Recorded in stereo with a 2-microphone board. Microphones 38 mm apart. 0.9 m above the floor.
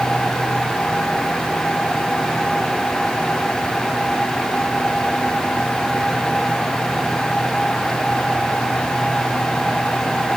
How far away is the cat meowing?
I don't hear a cat meowing.